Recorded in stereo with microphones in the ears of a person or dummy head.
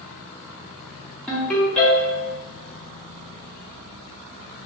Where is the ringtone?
10° left (ahead or behind), 1.3 m.